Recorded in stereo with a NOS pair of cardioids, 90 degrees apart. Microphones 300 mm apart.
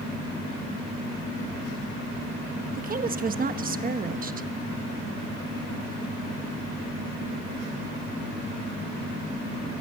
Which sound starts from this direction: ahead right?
A woman speaking, at 2.8 s.